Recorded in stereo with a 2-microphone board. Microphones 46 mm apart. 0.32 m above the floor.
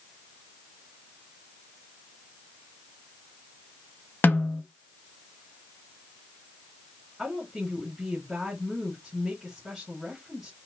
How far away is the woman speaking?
About 3 m.